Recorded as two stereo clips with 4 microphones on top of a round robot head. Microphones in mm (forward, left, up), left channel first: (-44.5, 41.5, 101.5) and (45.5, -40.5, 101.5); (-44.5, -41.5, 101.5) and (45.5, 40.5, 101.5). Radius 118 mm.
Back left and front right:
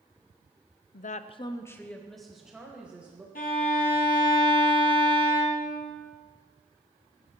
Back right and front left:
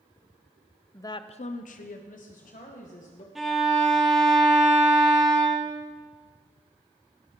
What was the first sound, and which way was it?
A woman speaking, 150° left.